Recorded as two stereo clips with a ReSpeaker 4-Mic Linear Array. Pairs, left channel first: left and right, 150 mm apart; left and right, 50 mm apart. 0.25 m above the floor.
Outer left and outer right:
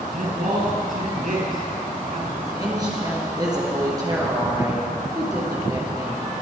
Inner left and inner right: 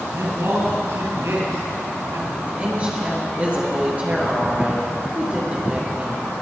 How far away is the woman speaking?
About 4 m.